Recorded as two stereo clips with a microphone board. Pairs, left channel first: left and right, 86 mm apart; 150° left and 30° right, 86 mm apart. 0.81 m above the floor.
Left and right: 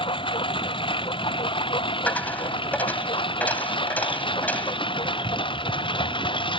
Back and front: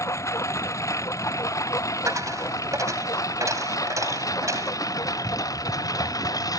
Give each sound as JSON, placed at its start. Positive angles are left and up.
{"t": 0.0, "sound": "a lawn mower", "azimuth_deg": 95}
{"t": 2.1, "sound": "a dropped coin", "azimuth_deg": 20}